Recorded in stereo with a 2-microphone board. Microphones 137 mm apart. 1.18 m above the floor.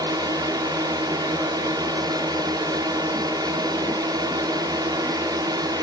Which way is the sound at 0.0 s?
30° right (ahead or behind).